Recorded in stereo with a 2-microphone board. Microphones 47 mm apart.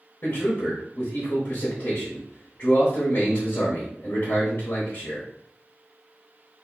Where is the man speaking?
50° left (ahead or behind), 1.2 m.